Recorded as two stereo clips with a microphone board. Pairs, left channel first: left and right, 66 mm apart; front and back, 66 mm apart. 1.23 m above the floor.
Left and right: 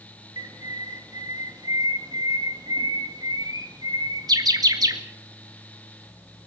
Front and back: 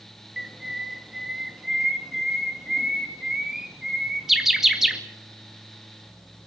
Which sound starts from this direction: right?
A bird, at 0.4 s.